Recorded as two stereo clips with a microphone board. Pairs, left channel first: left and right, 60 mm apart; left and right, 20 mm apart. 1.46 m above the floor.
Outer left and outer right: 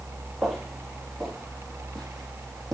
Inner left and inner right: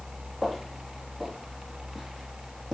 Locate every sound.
0.4 s footsteps: 5° right (ahead or behind), 2 m; by 2.8 s 5° left (ahead or behind), 3.5 m